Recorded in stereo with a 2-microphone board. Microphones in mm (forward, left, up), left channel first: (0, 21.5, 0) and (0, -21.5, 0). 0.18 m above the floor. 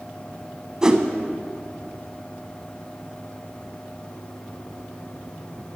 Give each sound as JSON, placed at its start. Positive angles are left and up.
{"t": 0.8, "sound": "a whoosh", "side_deg": -15, "distance_m": 0.5}